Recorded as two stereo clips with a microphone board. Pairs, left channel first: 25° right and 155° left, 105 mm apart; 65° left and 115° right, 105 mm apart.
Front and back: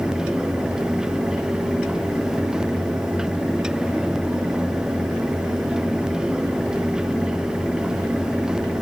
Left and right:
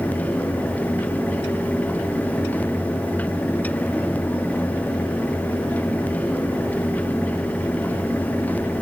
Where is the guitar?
No guitar in this recording.